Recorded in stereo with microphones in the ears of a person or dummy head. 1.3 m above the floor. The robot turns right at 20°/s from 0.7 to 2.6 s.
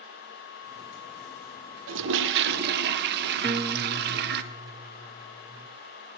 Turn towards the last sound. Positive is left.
turn(degrees=-20)  # may be behind; listen again after turning